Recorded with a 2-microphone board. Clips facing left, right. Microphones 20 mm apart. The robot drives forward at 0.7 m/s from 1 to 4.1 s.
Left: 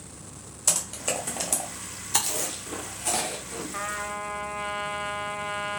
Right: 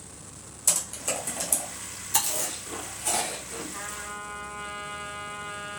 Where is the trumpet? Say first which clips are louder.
Left 5 dB; 80° left, 0.7 m; by 5.8 s 60° left (ahead or behind), 0.8 m.